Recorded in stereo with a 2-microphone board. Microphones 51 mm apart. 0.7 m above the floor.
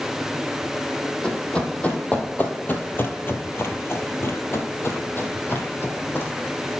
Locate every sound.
1.2 s running footsteps: 20° left (ahead or behind), 1.7 m; by 6.3 s 40° left (ahead or behind), 2.0 m